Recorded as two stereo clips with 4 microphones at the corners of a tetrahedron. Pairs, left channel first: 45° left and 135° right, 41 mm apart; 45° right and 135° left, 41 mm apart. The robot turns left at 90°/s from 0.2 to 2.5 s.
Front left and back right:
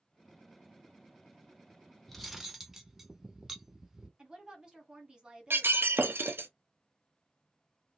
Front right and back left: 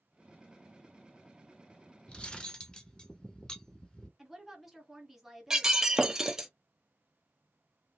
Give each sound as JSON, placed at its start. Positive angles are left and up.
{"t": 2.1, "sound": "cutlery clinking", "azimuth_deg": -35, "distance_m": 0.6}
{"t": 4.2, "sound": "a woman speaking", "azimuth_deg": -145, "distance_m": 1.2}
{"t": 5.5, "sound": "breaking glass", "azimuth_deg": -150, "distance_m": 0.5}